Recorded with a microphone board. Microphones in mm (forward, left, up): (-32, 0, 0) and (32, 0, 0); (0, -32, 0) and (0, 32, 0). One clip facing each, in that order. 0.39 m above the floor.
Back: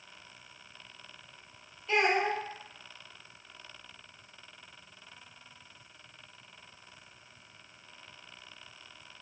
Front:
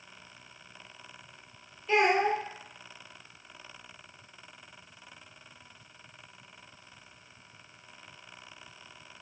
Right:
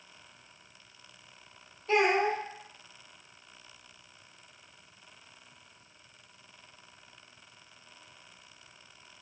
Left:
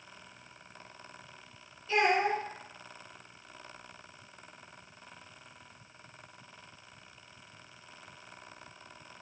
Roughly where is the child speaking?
Right.